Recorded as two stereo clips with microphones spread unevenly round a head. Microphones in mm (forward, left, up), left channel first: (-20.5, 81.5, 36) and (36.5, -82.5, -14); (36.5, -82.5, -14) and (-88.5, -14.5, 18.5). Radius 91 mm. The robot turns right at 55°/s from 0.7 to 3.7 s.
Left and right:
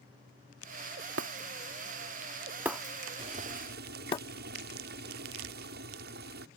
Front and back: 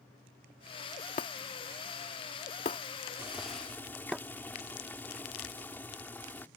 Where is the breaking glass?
60° right; by 4.2 s 80° left.